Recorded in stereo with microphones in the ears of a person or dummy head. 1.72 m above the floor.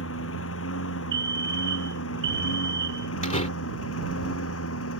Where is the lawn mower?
80° left; by 5.0 s 85° left.